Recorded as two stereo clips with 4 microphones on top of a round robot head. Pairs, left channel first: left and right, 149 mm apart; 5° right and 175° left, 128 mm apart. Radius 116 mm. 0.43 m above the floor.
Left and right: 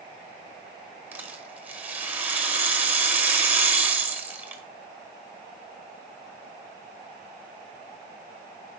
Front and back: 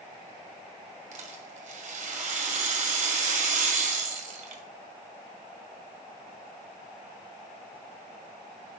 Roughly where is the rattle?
Behind.